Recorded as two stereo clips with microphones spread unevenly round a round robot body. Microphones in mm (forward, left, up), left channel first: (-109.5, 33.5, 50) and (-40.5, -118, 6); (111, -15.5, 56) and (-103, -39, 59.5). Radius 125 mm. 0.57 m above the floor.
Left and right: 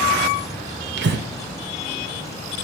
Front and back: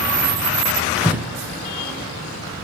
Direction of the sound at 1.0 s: 90° right.